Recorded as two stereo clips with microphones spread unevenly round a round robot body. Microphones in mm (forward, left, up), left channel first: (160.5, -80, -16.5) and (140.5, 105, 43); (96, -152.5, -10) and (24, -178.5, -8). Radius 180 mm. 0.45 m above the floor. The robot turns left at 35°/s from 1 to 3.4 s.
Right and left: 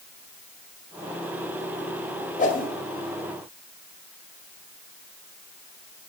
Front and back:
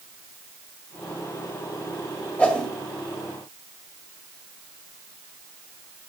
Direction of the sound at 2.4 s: 50° right.